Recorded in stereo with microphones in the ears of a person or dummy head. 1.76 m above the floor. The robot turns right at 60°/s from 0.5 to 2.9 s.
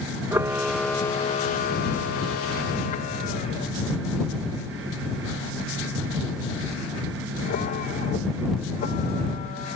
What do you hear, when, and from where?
0.3 s a camera shutter: 15° right (ahead or behind); by 9.8 s 45° left (ahead or behind)